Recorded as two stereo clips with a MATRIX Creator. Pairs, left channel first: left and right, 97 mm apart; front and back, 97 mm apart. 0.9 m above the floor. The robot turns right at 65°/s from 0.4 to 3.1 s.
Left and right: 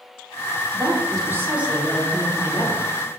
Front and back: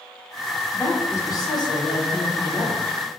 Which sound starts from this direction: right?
A woman speaking, at 0.7 s.